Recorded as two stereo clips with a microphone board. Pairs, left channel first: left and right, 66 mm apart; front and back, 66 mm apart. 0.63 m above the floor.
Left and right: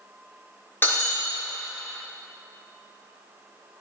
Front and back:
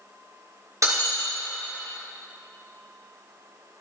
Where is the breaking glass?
145° left, 4.5 m.